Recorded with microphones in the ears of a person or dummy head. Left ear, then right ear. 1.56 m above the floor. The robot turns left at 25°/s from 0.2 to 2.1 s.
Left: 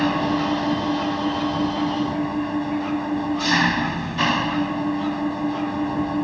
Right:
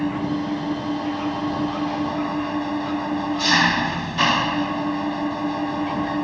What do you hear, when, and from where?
0.0 s an engine running: 30° left; by 6.2 s 15° right